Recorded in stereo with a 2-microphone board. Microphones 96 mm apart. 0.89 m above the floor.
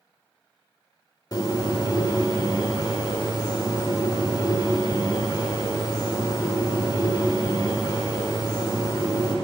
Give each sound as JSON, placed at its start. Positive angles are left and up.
{"t": 1.3, "sound": "a bird", "side_deg": 45, "distance_m": 1.0}